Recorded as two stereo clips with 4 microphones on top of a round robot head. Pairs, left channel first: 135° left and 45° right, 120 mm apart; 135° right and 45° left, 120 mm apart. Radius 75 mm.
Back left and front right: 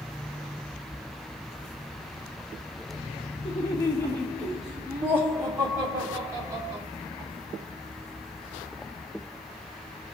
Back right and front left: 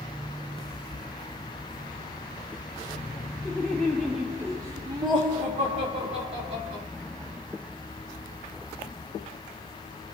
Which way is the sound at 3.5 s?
160° left.